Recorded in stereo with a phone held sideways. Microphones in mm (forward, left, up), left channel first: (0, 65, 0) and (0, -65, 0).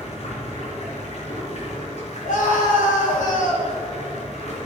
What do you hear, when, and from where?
0.0 s running water: 60° left (ahead or behind), 3.5 m
2.2 s a scream: 80° left, 4 m